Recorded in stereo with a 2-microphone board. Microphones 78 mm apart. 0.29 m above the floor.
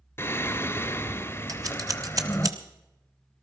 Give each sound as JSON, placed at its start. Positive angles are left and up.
{"t": 0.2, "sound": "singing", "side_deg": 30, "distance_m": 0.8}
{"t": 1.5, "sound": "scissors", "side_deg": -45, "distance_m": 1.2}